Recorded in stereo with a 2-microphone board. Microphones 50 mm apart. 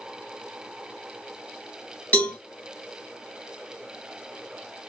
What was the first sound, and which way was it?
A cowbell, 35° left (ahead or behind).